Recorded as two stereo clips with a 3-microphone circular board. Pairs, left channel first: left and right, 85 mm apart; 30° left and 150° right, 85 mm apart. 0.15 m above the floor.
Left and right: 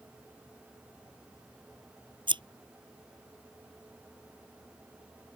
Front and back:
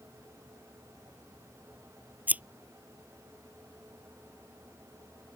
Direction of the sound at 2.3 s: 80° right.